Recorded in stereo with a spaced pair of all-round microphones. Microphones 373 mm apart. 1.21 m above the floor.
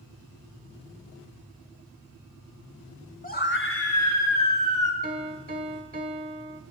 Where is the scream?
20° left (ahead or behind), 0.8 m; by 4.9 s 55° left (ahead or behind), 1.7 m.